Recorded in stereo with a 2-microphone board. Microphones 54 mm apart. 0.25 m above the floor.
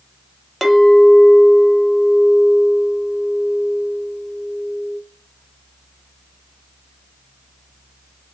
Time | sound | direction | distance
0.6 | a clink | centre (ahead or behind) | 0.5 m